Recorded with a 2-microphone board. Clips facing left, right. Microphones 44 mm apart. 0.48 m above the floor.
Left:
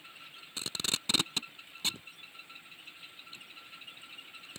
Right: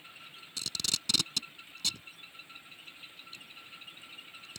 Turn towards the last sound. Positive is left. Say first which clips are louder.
# left 1 dB
turn(degrees=25)  # may be behind; listen again after turning